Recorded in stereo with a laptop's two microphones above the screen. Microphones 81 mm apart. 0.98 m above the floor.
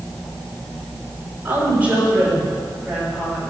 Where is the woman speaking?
25° right (ahead or behind), 2.5 m; by 3.4 s 10° right (ahead or behind), 5 m.